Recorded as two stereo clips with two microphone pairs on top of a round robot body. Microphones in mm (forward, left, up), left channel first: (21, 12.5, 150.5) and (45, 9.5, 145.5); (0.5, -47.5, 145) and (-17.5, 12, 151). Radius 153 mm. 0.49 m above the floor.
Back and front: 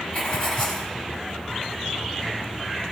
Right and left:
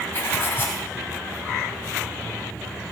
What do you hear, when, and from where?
0.1 s writing: 135° right, 1.5 m